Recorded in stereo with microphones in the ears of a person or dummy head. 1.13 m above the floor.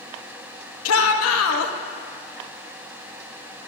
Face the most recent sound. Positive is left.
turn(degrees=85)